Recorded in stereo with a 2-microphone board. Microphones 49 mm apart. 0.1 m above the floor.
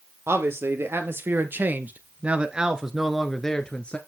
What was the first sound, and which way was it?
A man speaking, 60° right (ahead or behind).